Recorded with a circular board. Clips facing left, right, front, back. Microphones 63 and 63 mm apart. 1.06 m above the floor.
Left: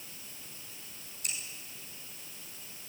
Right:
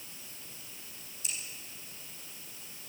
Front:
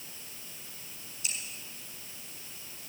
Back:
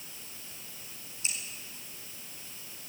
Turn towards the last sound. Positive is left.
turn(degrees=120)